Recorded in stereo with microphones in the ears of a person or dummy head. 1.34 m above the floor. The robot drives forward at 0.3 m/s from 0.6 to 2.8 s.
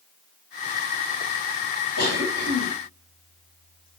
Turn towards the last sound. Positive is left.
turn(degrees=70)  # may be behind; listen again after turning